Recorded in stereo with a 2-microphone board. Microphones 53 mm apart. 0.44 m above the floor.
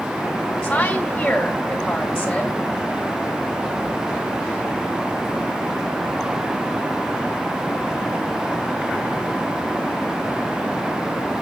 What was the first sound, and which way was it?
A woman speaking, 15° left (ahead or behind).